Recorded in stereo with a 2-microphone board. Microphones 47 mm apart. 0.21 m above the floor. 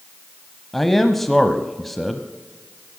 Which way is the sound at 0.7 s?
5° left (ahead or behind).